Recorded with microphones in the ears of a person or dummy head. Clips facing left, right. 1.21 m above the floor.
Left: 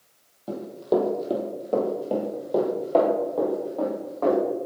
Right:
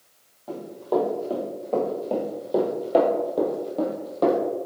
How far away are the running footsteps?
About 2.5 m.